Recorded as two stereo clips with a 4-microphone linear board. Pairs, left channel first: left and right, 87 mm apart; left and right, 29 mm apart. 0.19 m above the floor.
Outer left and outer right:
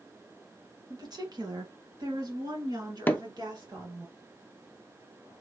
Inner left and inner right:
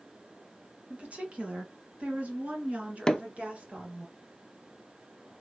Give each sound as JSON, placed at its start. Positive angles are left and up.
{"t": 0.9, "sound": "a woman speaking", "side_deg": -50, "distance_m": 1.8}
{"t": 3.1, "sound": "hammering", "side_deg": 20, "distance_m": 0.6}